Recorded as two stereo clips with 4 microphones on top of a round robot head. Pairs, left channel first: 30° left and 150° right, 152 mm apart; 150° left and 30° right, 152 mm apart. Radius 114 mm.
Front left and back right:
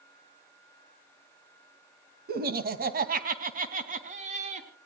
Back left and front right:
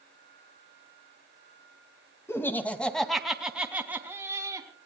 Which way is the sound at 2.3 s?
140° right.